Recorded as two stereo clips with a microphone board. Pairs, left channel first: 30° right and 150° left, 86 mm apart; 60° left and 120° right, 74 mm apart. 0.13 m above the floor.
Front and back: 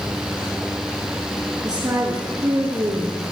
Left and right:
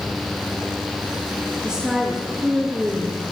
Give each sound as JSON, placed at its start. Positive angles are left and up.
{"t": 1.6, "sound": "a woman speaking", "azimuth_deg": 165, "distance_m": 1.8}